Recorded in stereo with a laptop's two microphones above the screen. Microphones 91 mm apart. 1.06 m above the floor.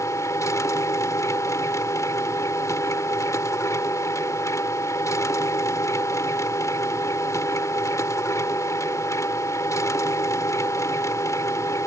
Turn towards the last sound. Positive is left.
turn(degrees=35)  # may be behind; listen again after turning